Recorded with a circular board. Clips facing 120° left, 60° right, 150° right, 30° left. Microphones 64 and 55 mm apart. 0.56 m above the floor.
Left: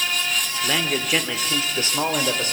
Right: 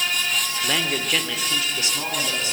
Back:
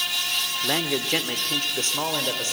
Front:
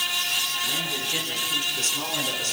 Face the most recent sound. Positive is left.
turn(degrees=150)